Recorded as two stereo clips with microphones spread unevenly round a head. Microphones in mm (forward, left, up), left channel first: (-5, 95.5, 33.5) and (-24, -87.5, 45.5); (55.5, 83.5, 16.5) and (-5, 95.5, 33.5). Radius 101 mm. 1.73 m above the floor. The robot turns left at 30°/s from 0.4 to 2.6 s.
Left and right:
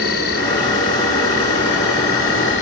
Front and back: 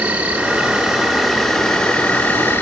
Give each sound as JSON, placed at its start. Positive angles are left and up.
{"t": 0.0, "sound": "an insect", "azimuth_deg": 115, "distance_m": 2.5}